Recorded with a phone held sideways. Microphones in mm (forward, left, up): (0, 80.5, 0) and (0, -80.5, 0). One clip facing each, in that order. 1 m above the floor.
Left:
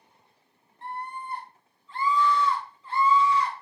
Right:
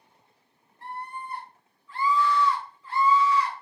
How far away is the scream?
About 1.9 m.